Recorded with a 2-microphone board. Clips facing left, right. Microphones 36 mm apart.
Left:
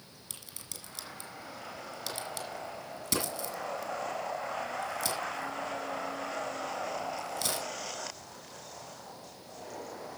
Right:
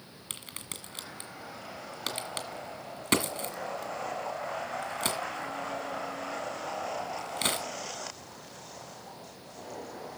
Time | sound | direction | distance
0.3 | a crack | 50° right (ahead or behind) | 2.5 m